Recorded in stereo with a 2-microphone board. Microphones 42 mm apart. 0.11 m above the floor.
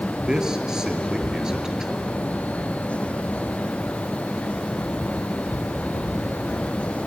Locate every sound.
0.3 s a man speaking: 15° right (ahead or behind), 2.5 m